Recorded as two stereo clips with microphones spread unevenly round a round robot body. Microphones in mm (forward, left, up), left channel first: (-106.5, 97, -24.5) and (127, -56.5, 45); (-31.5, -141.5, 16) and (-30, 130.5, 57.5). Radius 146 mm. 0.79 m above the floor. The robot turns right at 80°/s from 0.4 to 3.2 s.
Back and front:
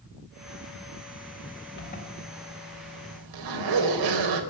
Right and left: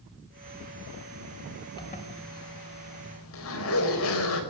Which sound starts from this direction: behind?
A zipper, at 1.8 s.